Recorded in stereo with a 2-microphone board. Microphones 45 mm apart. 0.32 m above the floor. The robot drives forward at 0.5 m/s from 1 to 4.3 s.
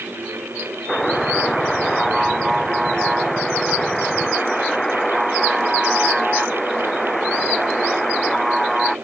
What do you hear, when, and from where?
0.9 s a buzzer: 5° left (ahead or behind)